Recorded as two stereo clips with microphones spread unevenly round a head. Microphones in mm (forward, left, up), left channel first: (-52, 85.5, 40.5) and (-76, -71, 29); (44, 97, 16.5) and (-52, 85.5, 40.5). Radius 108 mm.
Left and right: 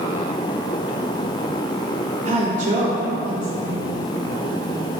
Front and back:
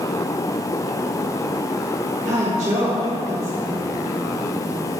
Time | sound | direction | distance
2.2 | a woman speaking | 135° right | 1.3 m